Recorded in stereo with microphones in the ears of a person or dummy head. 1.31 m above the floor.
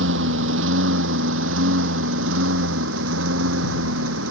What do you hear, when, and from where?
0.0 s a lawn mower: 80° right; by 4.3 s 85° right